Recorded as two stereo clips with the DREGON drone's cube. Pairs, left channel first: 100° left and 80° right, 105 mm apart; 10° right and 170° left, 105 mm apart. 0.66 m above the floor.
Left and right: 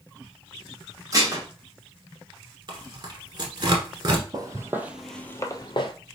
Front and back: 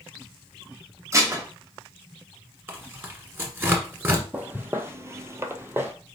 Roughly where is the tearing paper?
Behind right.